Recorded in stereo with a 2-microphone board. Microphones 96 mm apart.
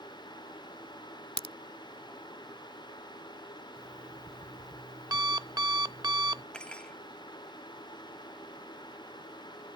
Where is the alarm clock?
40° right (ahead or behind).